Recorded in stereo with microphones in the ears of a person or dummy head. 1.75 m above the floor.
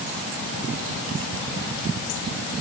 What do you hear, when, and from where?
Only background noise.